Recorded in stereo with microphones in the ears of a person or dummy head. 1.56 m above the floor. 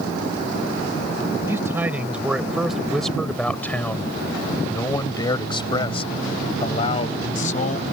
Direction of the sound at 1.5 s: 15° right (ahead or behind).